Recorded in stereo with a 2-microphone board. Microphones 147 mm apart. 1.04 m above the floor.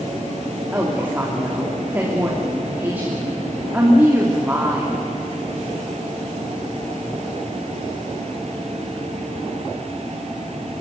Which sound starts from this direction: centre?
A woman speaking, at 0.7 s.